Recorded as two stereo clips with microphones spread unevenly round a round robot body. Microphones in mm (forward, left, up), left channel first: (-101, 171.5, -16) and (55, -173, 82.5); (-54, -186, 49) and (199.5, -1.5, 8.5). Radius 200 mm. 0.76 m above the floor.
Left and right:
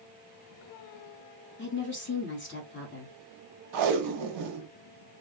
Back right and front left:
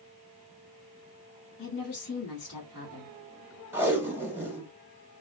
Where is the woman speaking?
155° left, 1.4 m.